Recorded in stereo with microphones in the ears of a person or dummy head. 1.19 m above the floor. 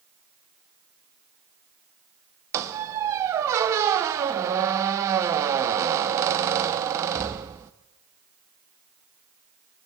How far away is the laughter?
I don't hear laughter.